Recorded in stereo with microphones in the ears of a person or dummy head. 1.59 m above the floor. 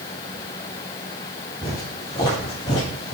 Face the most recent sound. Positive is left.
turn(degrees=40)  # may be behind; listen again after turning